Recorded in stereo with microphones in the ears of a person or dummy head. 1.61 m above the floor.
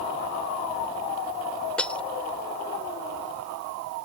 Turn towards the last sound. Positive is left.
turn(degrees=10)  # may be behind; listen again after turning